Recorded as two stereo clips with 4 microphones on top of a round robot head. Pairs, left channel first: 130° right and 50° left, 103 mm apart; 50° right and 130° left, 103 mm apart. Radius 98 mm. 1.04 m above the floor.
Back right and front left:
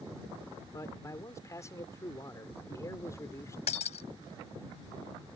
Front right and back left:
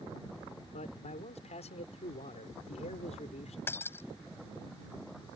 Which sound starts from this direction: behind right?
Breaking glass, at 3.7 s.